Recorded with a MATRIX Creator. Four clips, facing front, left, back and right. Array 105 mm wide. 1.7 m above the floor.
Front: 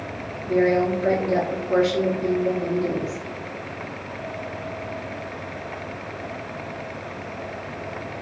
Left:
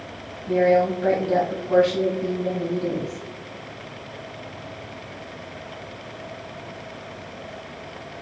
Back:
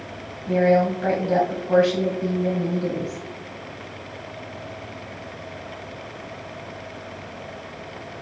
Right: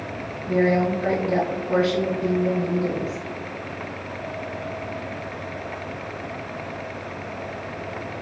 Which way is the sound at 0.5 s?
175° left.